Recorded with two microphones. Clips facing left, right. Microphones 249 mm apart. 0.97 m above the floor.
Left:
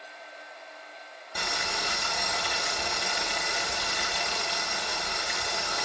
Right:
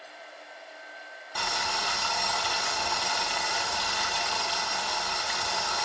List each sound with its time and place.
1.4 s boiling: 20° left (ahead or behind), 1.0 m